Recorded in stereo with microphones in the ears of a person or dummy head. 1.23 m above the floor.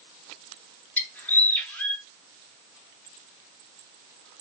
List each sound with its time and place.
1.0 s a bird: 10° left (ahead or behind), 1.0 m